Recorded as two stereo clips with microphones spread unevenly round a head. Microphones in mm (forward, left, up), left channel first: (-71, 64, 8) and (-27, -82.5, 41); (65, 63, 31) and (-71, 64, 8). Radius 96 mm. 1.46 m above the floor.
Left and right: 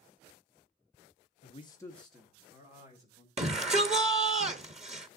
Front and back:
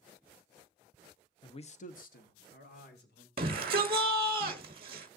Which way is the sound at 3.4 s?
125° right.